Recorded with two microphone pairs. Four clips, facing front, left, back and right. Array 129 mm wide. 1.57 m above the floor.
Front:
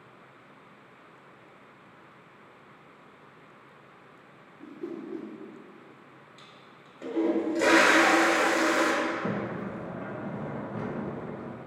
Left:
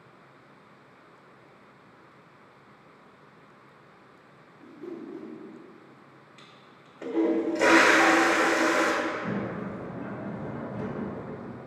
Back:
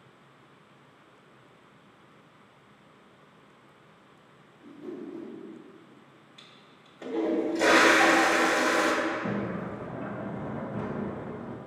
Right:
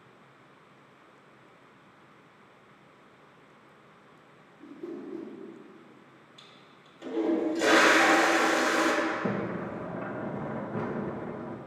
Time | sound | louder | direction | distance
4.6 | a whoosh | even, front 2 dB | 10° right | 3 m
6.4 | a toilet flushing | left 2 dB, front 3 dB | 95° left | 1.5 m
9.0 | a sliding door | right 1 dB, even | 70° right | 1.2 m